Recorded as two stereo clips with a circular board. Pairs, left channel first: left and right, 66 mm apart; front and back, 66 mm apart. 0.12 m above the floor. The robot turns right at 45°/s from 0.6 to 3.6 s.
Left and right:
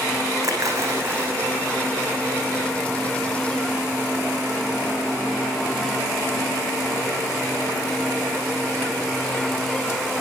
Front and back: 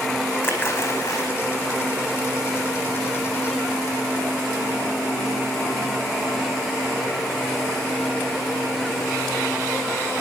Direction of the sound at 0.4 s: 55° right.